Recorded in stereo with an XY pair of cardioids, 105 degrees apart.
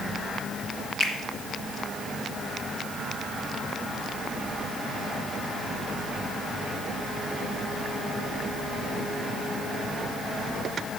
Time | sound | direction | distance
1.0 | a finger snap | 65° left | 1.8 m